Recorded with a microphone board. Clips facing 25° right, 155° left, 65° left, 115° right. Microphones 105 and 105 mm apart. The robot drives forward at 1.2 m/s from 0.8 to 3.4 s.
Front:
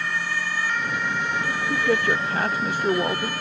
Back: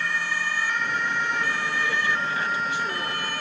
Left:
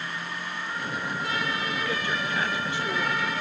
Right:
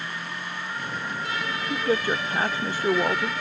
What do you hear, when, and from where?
1.7 s a man speaking: 60° right; by 3.3 s 65° right